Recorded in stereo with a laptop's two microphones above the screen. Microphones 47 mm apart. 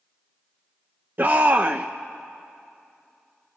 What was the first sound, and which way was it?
A shout, 40° right (ahead or behind).